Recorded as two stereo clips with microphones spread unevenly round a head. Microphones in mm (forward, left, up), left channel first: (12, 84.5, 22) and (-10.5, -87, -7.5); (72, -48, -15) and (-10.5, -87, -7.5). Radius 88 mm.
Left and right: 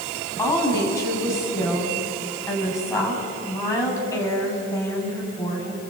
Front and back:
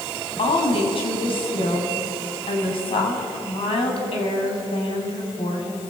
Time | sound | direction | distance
0.4 | a woman speaking | 10° left | 6.5 m